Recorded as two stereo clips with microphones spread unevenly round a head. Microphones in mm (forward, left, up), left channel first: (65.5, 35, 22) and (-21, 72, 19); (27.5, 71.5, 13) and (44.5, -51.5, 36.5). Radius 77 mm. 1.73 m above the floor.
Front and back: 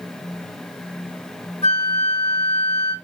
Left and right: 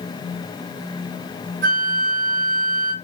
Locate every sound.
1.6 s a flute: 90° right, 1.2 m